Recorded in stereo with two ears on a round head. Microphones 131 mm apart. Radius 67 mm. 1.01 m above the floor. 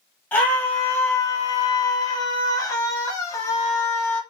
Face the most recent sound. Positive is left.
turn(degrees=20)  # may be behind; listen again after turning